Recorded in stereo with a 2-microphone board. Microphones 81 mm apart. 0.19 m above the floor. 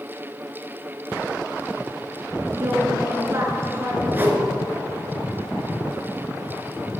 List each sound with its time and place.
2.5 s a woman speaking: 35° right (ahead or behind), 3 m
4.1 s a whoosh: 25° right (ahead or behind), 1.5 m